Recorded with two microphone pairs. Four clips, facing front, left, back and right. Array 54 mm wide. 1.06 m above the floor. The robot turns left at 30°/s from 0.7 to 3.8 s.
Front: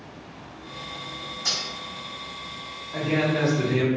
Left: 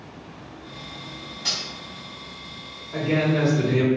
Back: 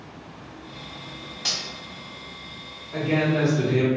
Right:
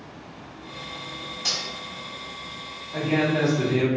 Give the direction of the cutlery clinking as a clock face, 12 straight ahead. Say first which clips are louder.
Even, even; 6 o'clock.